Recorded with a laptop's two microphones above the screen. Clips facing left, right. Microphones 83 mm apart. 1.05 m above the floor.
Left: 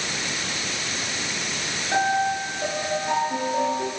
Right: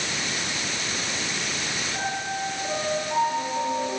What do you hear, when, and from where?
1.9 s a piano: 80° left, 8 m